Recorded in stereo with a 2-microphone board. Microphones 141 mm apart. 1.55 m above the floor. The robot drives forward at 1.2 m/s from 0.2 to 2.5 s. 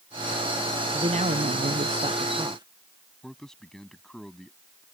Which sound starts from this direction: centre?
A man speaking, at 3.2 s.